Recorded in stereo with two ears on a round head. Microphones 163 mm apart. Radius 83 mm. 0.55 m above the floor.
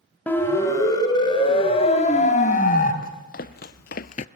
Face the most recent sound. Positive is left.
turn(degrees=35)  # may be behind; listen again after turning